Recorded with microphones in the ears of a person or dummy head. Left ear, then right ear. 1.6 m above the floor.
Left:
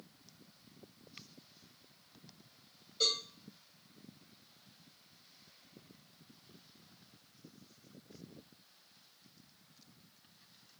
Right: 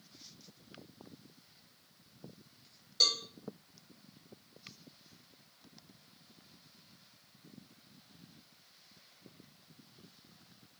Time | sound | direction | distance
3.0 | a cowbell | 55° right (ahead or behind) | 3 m